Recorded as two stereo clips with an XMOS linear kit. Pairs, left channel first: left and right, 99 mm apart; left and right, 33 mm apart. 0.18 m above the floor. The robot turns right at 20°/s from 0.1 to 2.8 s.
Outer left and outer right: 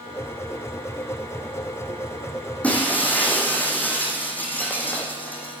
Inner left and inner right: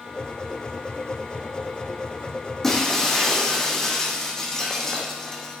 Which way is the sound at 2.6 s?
15° left (ahead or behind).